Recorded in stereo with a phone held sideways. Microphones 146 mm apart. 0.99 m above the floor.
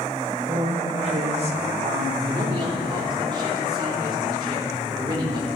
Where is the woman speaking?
45° right (ahead or behind), 1.1 m.